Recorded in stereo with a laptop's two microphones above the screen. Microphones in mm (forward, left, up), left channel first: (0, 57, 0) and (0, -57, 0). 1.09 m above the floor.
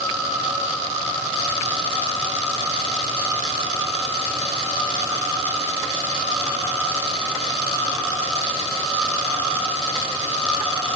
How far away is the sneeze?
No sneeze in this recording.